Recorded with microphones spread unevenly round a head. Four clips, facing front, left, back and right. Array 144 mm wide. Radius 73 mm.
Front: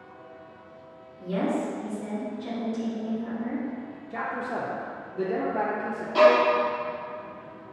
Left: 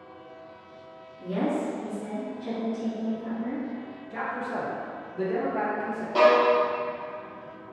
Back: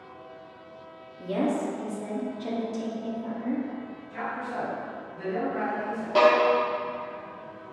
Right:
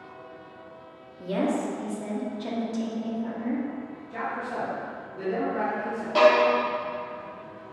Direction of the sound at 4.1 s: 15° left.